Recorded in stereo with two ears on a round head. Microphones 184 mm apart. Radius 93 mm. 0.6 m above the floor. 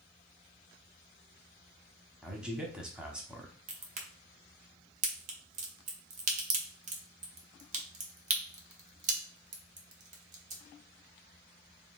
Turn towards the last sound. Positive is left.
turn(degrees=-35)  # may be behind; listen again after turning